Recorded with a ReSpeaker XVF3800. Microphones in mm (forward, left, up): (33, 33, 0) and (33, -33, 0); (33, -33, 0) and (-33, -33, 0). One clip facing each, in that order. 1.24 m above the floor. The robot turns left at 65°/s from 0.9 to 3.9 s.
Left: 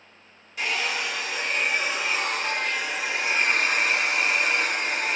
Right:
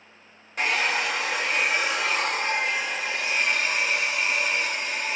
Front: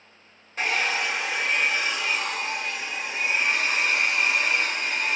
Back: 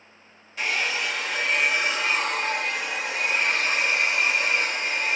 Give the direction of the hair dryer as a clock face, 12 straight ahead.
2 o'clock.